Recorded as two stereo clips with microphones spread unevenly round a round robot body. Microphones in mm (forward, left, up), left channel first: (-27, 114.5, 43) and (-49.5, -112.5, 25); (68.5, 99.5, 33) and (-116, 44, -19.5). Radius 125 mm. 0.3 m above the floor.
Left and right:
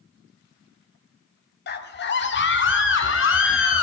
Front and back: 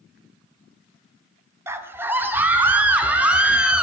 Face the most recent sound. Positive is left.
turn(degrees=115)